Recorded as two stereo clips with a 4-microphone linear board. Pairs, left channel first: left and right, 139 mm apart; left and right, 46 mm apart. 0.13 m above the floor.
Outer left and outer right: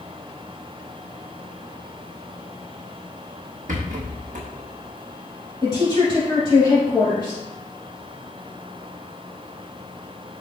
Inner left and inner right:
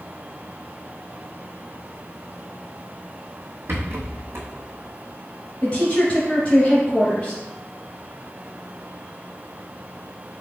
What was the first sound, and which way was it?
A rattle, 70° right (ahead or behind).